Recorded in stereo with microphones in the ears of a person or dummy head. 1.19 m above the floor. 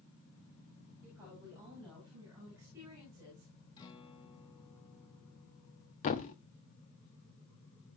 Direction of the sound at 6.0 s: 35° left (ahead or behind).